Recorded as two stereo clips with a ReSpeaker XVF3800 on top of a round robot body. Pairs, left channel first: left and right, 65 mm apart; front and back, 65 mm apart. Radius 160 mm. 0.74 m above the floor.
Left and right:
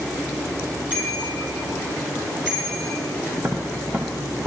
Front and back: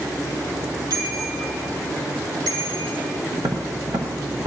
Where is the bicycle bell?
160° right, 8 m; by 3.0 s 175° right, 6.5 m.